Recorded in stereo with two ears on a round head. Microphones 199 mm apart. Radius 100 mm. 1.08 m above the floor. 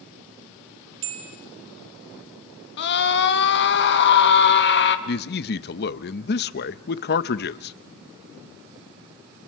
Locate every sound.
1.0 s a bell: 55° right (ahead or behind), 4 m
2.8 s a scream: 50° left (ahead or behind), 1.5 m
5.1 s a man speaking: 45° left (ahead or behind), 0.7 m